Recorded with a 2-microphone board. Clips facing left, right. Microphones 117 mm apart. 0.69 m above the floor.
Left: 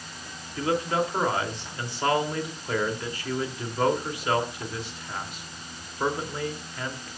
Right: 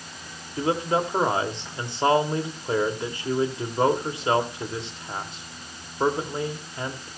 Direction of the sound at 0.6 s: 25° right (ahead or behind).